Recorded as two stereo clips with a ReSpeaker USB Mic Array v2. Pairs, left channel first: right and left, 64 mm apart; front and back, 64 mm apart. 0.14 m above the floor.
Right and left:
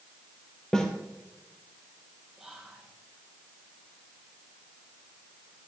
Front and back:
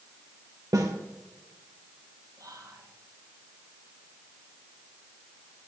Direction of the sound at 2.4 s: 175° left.